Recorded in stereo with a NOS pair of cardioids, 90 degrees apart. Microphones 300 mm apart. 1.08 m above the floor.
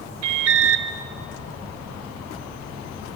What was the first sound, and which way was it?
An alarm, 60° right.